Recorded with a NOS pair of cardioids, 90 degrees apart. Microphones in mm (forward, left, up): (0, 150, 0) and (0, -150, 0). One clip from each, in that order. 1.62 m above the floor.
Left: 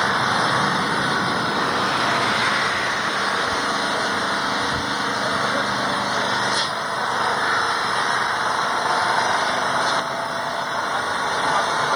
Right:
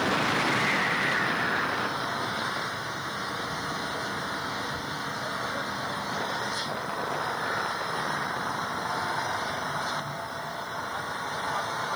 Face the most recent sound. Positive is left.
turn(degrees=70)